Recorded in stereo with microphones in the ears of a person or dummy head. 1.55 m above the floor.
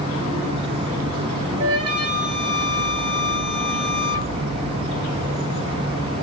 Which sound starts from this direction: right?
A flute, at 1.6 s.